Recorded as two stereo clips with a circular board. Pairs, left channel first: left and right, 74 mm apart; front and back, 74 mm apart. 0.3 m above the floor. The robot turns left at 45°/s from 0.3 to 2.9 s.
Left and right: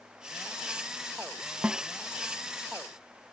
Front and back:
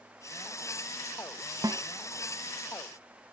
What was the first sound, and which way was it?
A snare drum, 160° right.